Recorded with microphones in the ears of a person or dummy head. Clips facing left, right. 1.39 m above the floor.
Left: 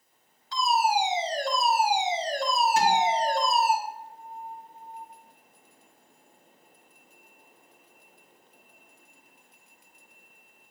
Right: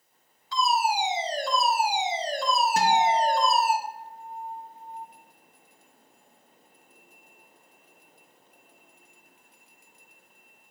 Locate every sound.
0.5 s a fire alarm: 70° right (ahead or behind), 2.5 m
2.8 s a guitar: 45° right (ahead or behind), 2 m